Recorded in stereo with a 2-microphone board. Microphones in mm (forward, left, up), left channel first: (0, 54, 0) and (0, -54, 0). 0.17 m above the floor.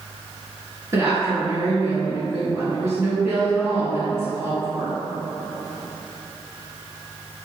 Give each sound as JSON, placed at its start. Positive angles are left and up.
{"t": 0.9, "sound": "a woman speaking", "side_deg": -25, "distance_m": 1.9}